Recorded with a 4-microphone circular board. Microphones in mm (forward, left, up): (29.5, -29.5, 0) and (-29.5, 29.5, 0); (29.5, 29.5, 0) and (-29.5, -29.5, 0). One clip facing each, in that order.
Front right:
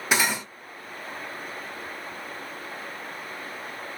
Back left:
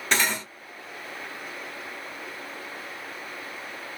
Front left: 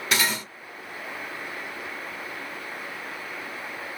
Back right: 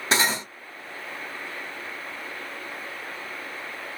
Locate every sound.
0.1 s cutlery clinking: 120° right, 0.7 m